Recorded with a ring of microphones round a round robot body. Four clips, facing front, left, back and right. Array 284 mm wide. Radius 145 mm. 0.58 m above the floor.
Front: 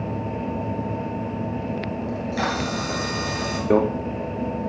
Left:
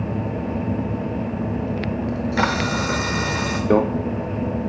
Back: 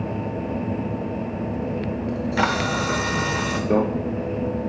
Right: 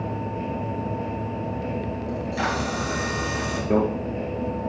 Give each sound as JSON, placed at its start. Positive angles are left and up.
{"t": 2.1, "sound": "a camera shutter", "azimuth_deg": 125, "distance_m": 0.8}
{"t": 3.7, "sound": "a microwave", "azimuth_deg": 65, "distance_m": 0.6}